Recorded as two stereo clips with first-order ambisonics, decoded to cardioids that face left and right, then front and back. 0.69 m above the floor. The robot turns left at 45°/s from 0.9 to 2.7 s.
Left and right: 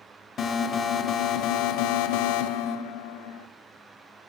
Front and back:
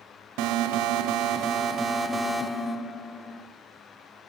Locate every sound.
0.4 s an alarm: 155° left, 0.8 m; by 3.5 s 75° left, 0.8 m